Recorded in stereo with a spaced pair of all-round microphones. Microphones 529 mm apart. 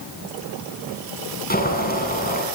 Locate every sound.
1.5 s boiling: 15° left (ahead or behind), 7 m